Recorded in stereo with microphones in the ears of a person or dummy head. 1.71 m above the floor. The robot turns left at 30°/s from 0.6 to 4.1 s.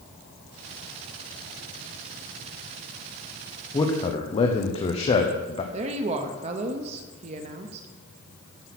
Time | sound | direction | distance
3.7 | a man speaking | 15° left (ahead or behind) | 0.9 m
5.7 | a woman speaking | 40° right (ahead or behind) | 0.9 m